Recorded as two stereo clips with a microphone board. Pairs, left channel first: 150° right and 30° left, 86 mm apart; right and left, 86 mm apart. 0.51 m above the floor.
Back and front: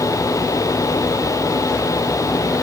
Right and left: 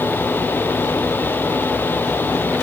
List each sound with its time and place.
Only background noise.